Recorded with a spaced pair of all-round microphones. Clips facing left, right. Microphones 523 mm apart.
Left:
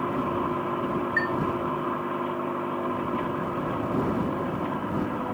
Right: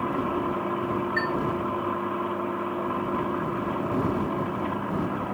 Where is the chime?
10° right (ahead or behind).